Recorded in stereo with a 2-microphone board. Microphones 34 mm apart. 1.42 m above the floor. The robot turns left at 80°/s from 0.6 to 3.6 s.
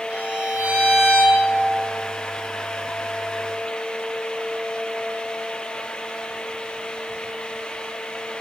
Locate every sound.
0.1 s a violin: 45° right, 1.4 m; by 1.4 s 115° right, 1.4 m